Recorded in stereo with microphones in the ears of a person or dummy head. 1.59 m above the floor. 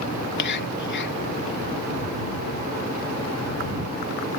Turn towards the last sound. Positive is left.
turn(degrees=60)  # may be behind; listen again after turning